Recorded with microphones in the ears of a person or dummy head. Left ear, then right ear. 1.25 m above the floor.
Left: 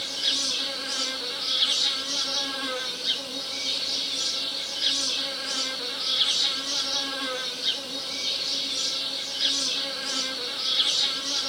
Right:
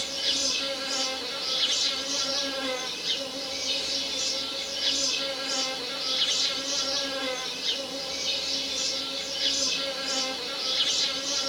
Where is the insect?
40° left (ahead or behind), 2 m.